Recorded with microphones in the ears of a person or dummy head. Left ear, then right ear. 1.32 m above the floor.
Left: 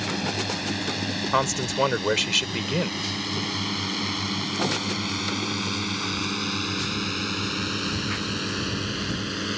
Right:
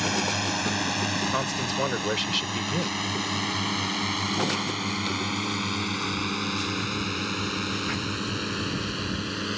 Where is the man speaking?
25° left (ahead or behind).